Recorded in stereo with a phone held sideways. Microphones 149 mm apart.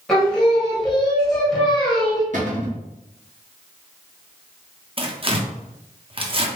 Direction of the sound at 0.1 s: 5° left (ahead or behind).